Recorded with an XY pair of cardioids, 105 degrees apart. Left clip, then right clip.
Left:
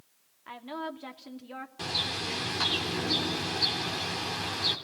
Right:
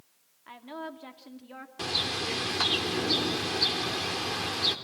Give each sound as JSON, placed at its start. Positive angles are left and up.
{"t": 0.5, "sound": "a woman speaking", "azimuth_deg": 25, "distance_m": 2.5}
{"t": 1.8, "sound": "a bird", "azimuth_deg": -25, "distance_m": 3.0}